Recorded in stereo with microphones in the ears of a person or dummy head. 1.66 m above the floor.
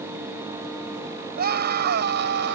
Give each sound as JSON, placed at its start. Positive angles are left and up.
{"t": 1.4, "sound": "a scream", "side_deg": -55}